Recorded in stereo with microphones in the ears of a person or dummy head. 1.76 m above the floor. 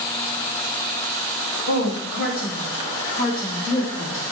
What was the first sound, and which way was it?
A woman speaking, 65° left (ahead or behind).